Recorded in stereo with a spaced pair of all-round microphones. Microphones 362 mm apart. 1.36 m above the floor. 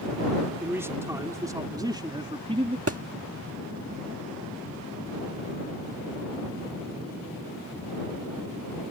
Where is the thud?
40° right (ahead or behind).